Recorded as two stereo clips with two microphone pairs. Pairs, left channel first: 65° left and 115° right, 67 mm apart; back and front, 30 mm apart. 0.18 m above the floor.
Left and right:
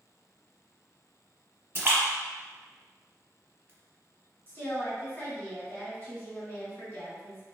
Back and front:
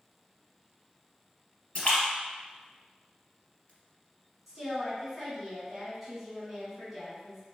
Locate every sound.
1.8 s a splash: 155° right, 1.2 m
4.5 s a woman speaking: 85° left, 1.5 m